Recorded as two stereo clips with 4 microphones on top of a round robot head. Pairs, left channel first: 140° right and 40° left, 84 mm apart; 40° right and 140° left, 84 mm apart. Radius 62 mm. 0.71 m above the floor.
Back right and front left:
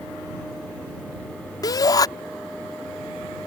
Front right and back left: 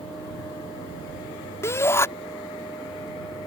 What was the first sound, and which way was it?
A shout, 100° right.